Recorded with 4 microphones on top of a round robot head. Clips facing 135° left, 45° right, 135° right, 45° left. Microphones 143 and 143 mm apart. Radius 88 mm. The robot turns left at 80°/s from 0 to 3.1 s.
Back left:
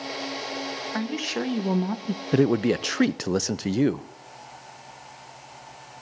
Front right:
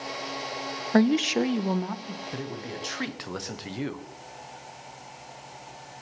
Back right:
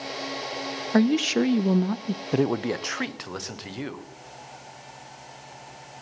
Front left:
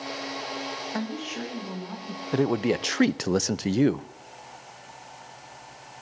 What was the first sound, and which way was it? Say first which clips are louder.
A woman speaking: front right 9 dB, back right 14 dB; 90° right.